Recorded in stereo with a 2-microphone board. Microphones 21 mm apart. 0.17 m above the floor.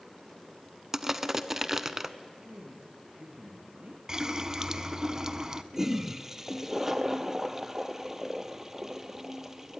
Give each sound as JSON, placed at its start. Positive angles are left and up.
{"t": 0.9, "sound": "crushing", "side_deg": -20, "distance_m": 0.7}
{"t": 2.4, "sound": "a man speaking", "side_deg": -60, "distance_m": 3.5}
{"t": 4.1, "sound": "a running tap", "side_deg": -25, "distance_m": 0.8}
{"t": 5.7, "sound": "a toilet flushing", "side_deg": -20, "distance_m": 0.8}